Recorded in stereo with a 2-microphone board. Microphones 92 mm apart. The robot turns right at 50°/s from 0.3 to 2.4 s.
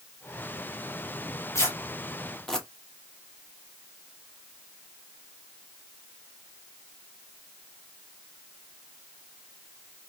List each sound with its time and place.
1.6 s tearing paper: 30° left (ahead or behind), 0.9 m; by 2.7 s 5° left (ahead or behind), 0.9 m